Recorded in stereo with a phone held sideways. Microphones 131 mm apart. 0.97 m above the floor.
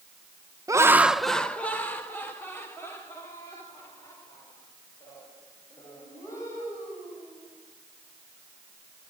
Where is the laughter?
25° right (ahead or behind), 0.6 m; by 7.5 s 25° left (ahead or behind), 7 m.